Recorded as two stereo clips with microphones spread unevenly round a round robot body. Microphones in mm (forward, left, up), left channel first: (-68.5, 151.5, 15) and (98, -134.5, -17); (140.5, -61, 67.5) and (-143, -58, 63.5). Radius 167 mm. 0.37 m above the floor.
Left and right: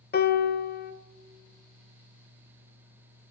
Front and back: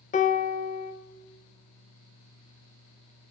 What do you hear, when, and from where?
0.1 s a piano: 60° left, 0.6 m